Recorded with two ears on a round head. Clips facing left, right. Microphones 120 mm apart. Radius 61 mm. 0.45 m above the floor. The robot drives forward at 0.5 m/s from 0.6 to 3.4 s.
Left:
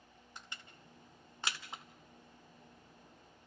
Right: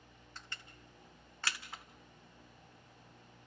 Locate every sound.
0.4 s crushing: 15° left (ahead or behind), 1.8 m; by 1.8 s 20° left (ahead or behind), 1.5 m